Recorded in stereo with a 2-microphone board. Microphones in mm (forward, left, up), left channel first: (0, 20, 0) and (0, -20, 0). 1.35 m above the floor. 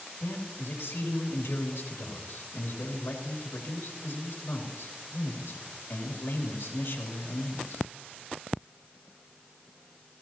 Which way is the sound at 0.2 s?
75° left (ahead or behind).